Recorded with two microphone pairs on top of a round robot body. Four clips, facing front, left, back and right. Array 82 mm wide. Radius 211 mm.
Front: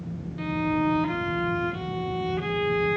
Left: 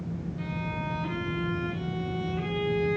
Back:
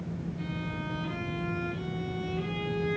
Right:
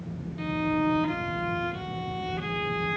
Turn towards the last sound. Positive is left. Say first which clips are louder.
# right 11 dB, front 11 dB
turn(degrees=-25)